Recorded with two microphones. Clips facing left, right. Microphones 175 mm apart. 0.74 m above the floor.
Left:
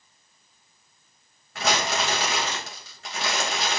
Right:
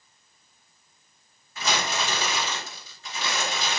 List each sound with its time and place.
1.6 s crumpling: 75° left (ahead or behind), 3.5 m